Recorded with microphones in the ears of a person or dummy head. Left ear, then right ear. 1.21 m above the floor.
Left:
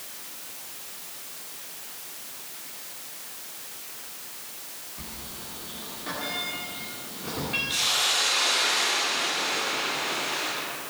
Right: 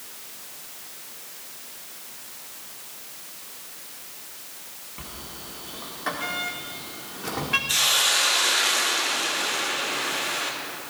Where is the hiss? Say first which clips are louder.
Right 3 dB; 55° right (ahead or behind), 2.5 m.